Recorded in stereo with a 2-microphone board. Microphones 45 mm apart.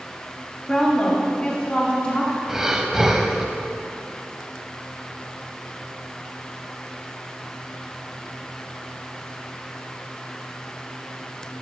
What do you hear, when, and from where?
0.7 s a woman speaking: 10° left (ahead or behind), 1.2 m; by 2.4 s 25° left (ahead or behind), 1.9 m
2.5 s breathing: 10° right (ahead or behind), 0.5 m